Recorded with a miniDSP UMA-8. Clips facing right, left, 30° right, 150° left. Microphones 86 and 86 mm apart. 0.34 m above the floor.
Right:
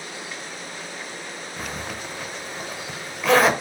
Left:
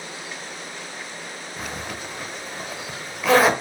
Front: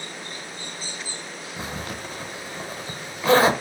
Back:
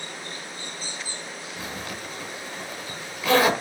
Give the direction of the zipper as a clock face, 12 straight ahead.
12 o'clock.